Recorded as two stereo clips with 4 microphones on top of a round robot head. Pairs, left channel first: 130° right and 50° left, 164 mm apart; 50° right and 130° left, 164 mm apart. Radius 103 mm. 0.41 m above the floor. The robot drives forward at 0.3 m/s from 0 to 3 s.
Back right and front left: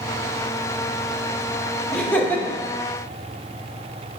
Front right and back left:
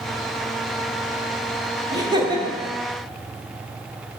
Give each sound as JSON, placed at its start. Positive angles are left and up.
{"t": 1.9, "sound": "laughter", "azimuth_deg": 150, "distance_m": 0.9}